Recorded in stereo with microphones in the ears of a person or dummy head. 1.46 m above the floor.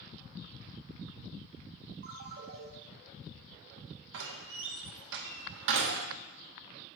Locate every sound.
2.0 s a ringtone: 65° right (ahead or behind), 1.4 m
4.1 s a door slam: 65° right (ahead or behind), 1.0 m